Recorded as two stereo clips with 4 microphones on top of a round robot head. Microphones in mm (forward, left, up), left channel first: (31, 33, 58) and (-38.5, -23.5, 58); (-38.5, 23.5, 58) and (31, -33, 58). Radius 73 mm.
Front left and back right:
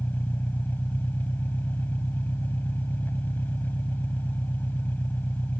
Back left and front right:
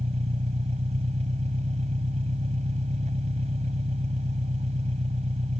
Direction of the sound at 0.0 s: 35° right.